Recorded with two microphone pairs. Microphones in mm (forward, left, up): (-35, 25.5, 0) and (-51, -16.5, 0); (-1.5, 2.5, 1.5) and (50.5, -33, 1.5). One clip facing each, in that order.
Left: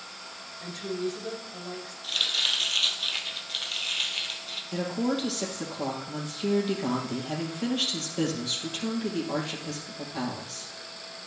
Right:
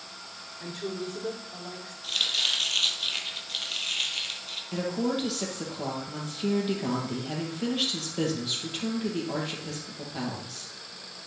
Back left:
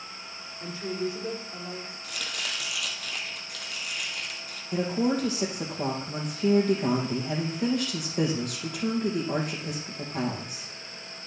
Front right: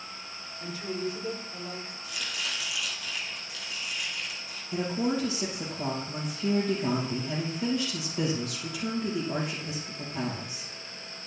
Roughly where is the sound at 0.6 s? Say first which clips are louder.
Left 2 dB, back left 2 dB; behind right.